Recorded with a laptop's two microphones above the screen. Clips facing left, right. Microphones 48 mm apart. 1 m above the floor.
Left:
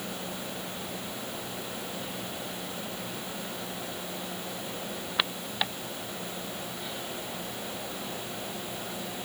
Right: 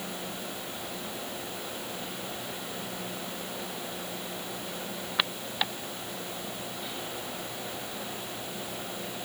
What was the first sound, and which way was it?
Only background noise.